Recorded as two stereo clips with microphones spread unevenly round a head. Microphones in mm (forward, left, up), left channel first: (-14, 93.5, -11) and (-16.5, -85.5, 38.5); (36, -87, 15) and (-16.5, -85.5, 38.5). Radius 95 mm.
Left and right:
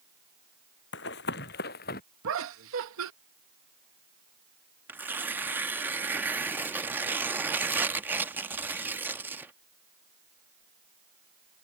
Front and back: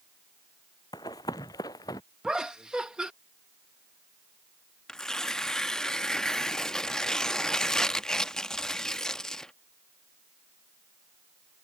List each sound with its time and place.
0.9 s running footsteps: 50° left; by 2.0 s 40° left
2.2 s laughter: 105° right
4.9 s tearing paper: 120° right